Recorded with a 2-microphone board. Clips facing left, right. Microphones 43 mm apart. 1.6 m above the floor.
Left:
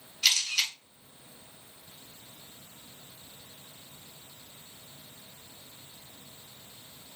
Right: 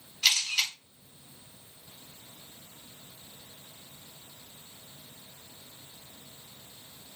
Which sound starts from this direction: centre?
A camera shutter, at 0.2 s.